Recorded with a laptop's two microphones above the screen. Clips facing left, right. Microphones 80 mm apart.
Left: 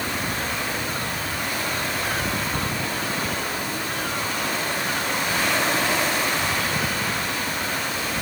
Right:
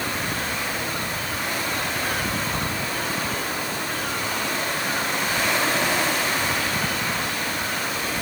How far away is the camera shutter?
No camera shutter in this recording.